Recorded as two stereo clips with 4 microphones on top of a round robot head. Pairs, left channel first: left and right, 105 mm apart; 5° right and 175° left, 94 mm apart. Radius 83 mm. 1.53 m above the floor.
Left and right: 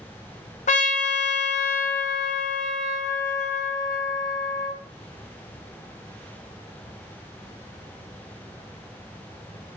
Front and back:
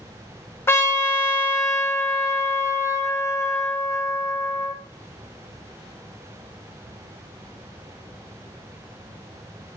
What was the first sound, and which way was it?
A trumpet, 60° left.